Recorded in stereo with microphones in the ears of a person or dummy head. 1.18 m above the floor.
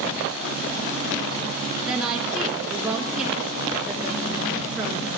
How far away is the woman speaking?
About 1.1 m.